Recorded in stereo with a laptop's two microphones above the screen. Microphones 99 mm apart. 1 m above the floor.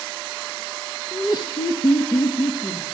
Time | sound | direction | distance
1.1 | laughter | 25° left (ahead or behind) | 1.0 m